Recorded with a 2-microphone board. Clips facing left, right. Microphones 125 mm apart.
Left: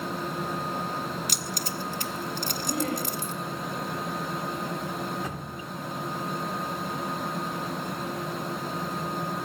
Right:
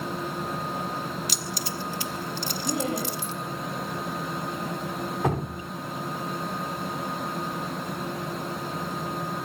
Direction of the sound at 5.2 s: 70° right (ahead or behind).